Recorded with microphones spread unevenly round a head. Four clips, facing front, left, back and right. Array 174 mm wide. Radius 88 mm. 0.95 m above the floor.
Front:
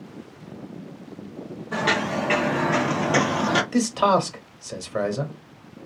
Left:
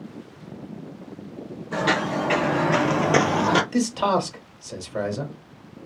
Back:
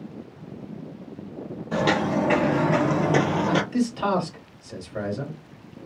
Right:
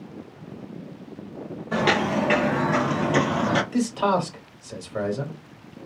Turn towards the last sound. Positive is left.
turn(degrees=15)